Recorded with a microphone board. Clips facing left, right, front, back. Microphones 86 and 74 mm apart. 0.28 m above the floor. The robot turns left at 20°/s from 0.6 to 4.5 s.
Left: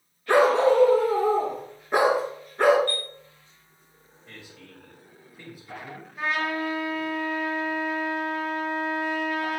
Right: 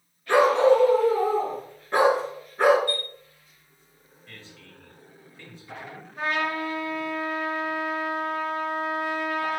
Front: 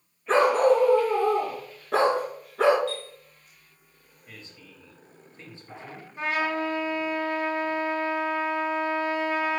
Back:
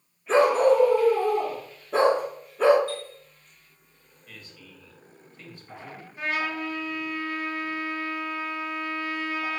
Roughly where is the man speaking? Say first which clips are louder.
Left 2 dB, even; ahead left.